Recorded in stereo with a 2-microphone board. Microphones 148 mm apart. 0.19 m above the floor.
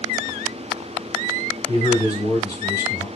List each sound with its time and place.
1.7 s a man speaking: 25° left (ahead or behind), 1.7 m